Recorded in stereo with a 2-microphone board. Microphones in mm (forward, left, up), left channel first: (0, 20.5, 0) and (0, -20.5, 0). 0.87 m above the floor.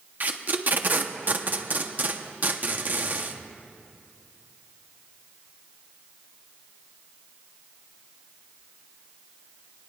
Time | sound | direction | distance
0.2 | tape being pulled | 45° right (ahead or behind) | 0.9 m